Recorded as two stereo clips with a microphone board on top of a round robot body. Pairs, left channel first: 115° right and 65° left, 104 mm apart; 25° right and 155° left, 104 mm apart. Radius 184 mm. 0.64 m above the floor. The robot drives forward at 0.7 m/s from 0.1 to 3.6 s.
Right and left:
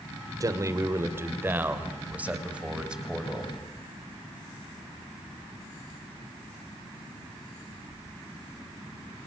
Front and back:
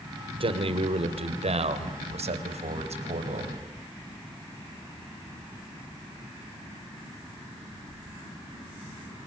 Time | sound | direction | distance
0.4 | a man speaking | 125° left | 2.5 m